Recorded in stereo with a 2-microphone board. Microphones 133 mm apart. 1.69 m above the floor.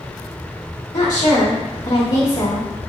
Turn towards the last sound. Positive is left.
turn(degrees=70)  # may be behind; listen again after turning